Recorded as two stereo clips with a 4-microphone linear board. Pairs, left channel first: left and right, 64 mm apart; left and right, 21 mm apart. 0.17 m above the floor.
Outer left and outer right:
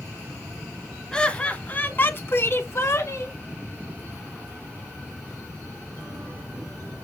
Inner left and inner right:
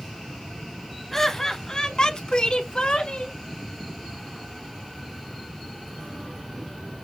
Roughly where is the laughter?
Centre.